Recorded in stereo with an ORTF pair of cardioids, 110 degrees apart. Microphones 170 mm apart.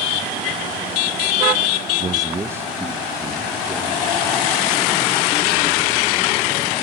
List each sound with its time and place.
2.0 s a man speaking: 30° right, 0.6 m; by 4.5 s 5° right, 4 m